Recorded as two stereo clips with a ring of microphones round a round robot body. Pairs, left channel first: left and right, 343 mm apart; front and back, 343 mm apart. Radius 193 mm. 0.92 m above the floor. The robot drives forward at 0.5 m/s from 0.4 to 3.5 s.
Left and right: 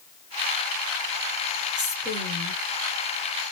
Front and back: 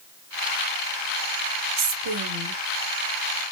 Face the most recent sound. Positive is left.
turn(degrees=180)